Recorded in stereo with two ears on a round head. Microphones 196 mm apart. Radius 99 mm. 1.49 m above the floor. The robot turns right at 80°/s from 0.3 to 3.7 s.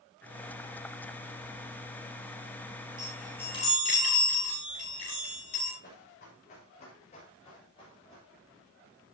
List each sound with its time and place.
3.0 s a chime: 25° right (ahead or behind), 9 m; by 5.7 s 35° left (ahead or behind), 9 m
5.8 s running footsteps: 40° left (ahead or behind), 7 m; by 8.3 s 20° left (ahead or behind), 7.5 m